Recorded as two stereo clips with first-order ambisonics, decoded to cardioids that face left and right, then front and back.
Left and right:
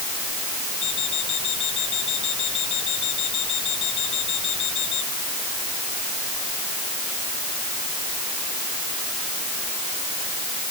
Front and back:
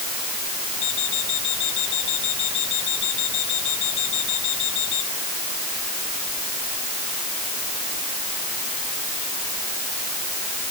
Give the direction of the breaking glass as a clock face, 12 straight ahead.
I don't hear breaking glass.